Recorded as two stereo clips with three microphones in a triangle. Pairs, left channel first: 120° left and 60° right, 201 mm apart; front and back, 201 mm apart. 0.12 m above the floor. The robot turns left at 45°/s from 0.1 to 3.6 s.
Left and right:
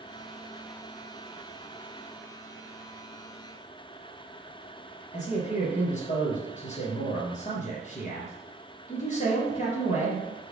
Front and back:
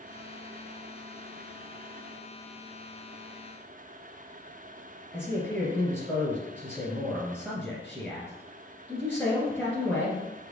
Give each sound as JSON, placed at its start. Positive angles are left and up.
{"t": 5.1, "sound": "a man speaking", "azimuth_deg": 90, "distance_m": 1.7}